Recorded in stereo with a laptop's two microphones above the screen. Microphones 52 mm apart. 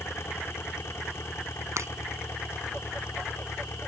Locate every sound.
0.0 s an engine running: 55° left (ahead or behind)
1.8 s breaking glass: 60° right (ahead or behind)